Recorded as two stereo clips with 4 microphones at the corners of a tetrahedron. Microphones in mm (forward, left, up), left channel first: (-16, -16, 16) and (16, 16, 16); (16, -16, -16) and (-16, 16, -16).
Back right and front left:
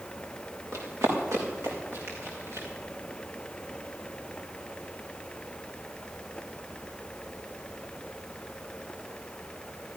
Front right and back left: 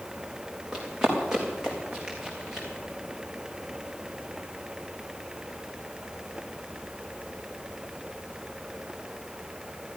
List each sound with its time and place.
0.7 s running footsteps: 55° left, 5 m; by 2.7 s 60° left, 6 m